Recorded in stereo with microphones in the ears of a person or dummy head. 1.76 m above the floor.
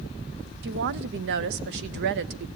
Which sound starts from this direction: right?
A woman speaking, at 0.6 s.